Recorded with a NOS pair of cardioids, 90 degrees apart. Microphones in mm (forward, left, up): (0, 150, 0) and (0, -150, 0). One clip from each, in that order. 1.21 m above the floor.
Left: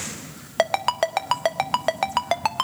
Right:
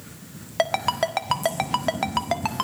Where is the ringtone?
25° left, 1.4 m.